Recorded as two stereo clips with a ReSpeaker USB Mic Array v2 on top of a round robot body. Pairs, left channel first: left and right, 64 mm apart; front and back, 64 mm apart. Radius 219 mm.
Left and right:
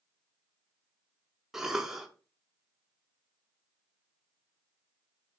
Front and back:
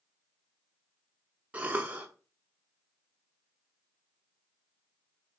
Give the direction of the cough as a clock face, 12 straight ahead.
5 o'clock.